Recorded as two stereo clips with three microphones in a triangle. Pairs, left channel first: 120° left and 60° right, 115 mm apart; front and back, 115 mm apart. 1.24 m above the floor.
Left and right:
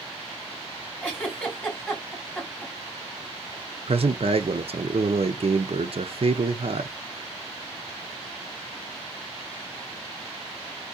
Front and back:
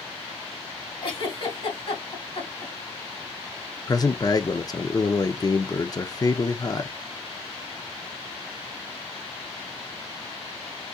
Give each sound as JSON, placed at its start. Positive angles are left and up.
{"t": 1.0, "sound": "a giggle", "azimuth_deg": 40, "distance_m": 2.5}
{"t": 3.9, "sound": "a man speaking", "azimuth_deg": -50, "distance_m": 0.5}